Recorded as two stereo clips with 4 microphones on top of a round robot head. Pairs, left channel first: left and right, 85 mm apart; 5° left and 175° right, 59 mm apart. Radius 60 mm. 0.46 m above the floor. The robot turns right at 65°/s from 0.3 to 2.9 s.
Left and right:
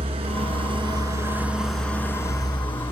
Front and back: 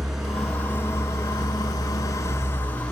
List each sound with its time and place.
0.0 s an engine running: 90° right, 4 m; by 2.9 s 75° left, 4 m